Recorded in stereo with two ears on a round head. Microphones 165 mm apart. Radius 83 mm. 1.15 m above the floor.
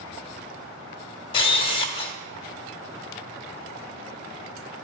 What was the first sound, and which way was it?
A camera shutter, 25° left (ahead or behind).